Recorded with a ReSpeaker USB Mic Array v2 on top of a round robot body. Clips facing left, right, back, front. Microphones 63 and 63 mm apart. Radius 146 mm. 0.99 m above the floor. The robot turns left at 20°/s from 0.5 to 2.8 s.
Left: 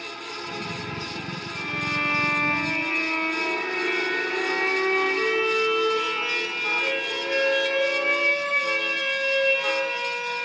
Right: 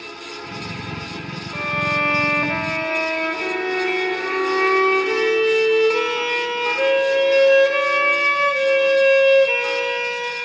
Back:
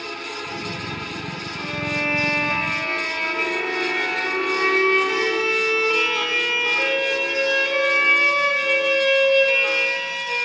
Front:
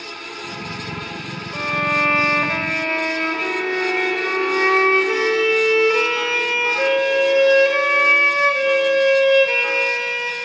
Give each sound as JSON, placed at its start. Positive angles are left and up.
{"t": 1.5, "sound": "a violin", "azimuth_deg": -40, "distance_m": 1.5}